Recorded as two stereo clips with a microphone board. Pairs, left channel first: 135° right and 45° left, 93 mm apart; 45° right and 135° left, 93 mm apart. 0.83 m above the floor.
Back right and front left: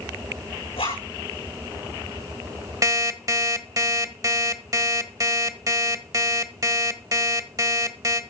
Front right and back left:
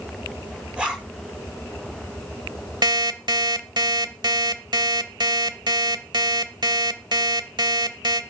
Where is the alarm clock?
95° left, 1.3 m.